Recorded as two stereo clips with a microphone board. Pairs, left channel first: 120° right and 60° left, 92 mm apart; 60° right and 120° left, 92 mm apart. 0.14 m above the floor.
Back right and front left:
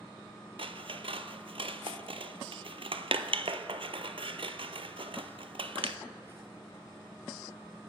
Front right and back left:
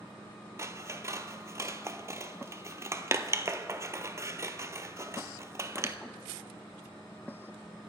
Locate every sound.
0.6 s scissors: 60° left, 0.5 m